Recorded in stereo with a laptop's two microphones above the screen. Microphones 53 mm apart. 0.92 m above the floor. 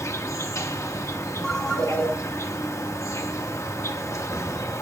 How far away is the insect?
About 0.9 m.